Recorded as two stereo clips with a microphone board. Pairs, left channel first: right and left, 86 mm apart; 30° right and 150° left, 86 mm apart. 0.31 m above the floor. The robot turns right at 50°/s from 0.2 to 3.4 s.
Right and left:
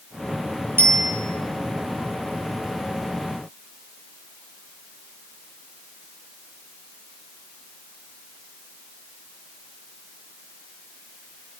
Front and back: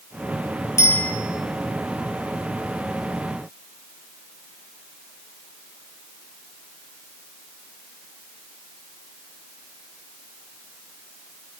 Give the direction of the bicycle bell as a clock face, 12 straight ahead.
11 o'clock.